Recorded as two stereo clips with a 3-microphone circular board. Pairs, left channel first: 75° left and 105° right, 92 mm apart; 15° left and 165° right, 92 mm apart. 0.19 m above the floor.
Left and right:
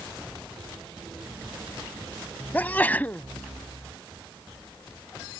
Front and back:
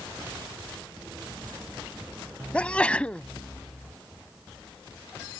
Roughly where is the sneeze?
Ahead left.